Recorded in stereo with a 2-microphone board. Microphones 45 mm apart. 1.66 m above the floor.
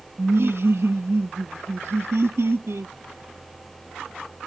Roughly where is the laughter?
Right.